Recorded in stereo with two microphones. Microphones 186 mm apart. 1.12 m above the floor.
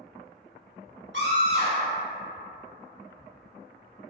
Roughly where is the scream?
Right.